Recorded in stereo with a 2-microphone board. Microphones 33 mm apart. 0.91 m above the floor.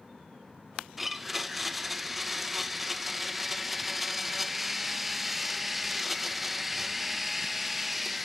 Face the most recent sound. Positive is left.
turn(degrees=-5)  # may be behind; listen again after turning